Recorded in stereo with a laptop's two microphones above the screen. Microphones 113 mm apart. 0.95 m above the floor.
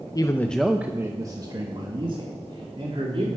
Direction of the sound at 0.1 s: 35° left (ahead or behind).